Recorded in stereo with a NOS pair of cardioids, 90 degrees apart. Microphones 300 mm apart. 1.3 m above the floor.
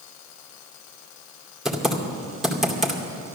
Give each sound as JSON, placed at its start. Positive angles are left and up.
{"t": 1.6, "sound": "typing on a keyboard", "azimuth_deg": 0, "distance_m": 2.5}